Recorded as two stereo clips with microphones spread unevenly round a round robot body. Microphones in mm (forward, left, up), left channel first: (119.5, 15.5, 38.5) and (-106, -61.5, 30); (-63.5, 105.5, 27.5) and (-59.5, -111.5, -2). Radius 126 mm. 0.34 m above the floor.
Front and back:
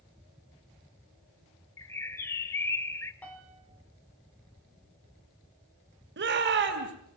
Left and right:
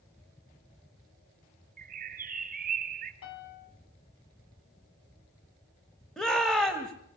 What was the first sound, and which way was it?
A bird, 60° right.